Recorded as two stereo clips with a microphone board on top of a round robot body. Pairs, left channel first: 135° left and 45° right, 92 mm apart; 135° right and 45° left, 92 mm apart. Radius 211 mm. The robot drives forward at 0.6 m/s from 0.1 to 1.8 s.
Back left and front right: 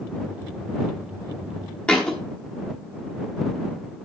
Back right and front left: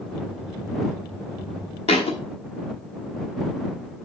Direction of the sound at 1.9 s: 145° right.